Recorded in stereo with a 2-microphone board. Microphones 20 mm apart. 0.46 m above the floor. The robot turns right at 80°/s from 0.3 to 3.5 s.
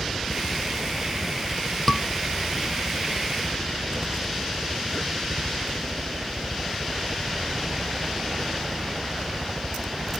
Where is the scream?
15° left (ahead or behind); by 2.0 s 30° left (ahead or behind).